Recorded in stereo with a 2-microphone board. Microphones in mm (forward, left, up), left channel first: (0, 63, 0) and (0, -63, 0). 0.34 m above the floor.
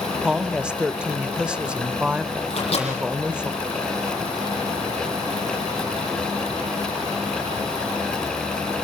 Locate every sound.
0.2 s a woman speaking: 10° right (ahead or behind), 0.9 m
2.5 s a microwave: 50° left (ahead or behind), 9 m